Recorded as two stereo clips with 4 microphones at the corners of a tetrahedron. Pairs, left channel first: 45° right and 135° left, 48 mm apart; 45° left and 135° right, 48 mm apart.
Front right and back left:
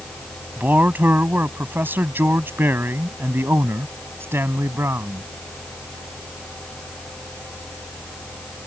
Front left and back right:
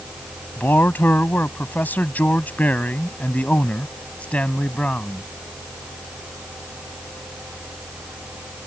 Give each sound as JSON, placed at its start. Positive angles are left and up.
{"t": 0.6, "sound": "a man speaking", "azimuth_deg": 85}